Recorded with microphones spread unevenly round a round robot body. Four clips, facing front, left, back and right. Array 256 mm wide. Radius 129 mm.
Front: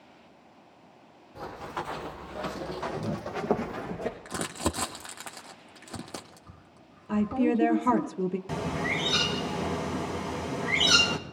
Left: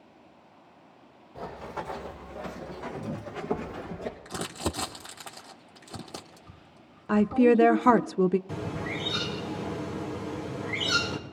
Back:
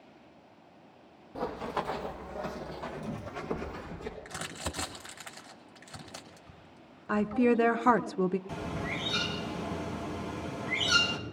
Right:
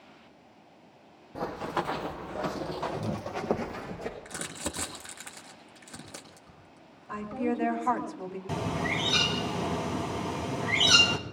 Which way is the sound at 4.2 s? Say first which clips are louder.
Left 5 dB, front 8 dB; 25° left.